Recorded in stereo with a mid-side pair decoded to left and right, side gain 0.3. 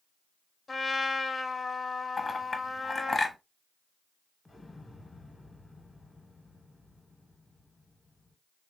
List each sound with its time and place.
0.7 s a trumpet: 40° left, 0.8 m
2.2 s a clink: 40° left, 0.9 m
4.5 s an explosion: 30° left, 0.8 m